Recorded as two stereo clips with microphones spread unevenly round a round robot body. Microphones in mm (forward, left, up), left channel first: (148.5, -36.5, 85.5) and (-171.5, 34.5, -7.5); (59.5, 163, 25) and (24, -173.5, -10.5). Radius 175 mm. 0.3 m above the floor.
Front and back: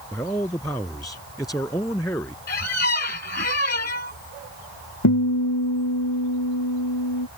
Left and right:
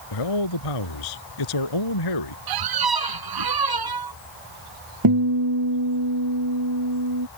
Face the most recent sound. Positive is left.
turn(degrees=-60)